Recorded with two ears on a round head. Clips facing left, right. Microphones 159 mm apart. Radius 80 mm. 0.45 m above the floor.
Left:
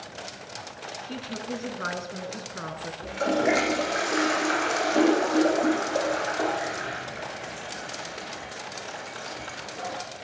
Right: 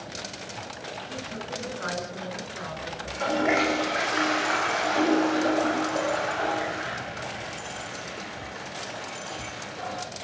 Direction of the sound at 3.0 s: 40° left (ahead or behind).